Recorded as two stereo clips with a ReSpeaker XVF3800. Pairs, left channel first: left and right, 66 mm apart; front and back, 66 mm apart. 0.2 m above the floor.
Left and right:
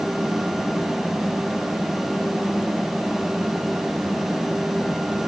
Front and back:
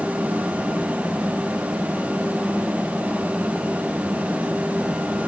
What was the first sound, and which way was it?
Only background noise.